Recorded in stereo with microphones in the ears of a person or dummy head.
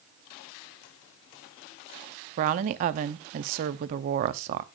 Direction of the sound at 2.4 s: 35° right (ahead or behind).